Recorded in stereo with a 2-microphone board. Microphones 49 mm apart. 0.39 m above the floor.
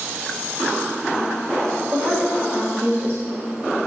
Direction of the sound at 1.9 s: 35° right (ahead or behind).